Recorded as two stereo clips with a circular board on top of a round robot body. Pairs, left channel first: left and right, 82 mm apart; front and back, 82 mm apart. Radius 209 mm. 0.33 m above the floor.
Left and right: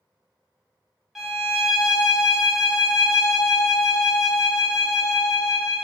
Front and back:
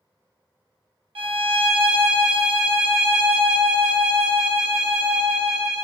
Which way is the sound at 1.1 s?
175° right.